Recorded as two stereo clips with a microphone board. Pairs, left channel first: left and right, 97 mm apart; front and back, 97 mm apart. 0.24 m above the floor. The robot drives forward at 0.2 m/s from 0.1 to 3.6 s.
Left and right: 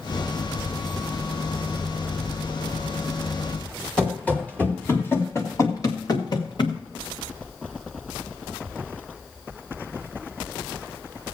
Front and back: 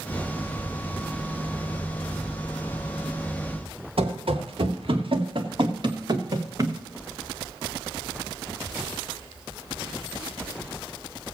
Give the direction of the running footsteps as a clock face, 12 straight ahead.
6 o'clock.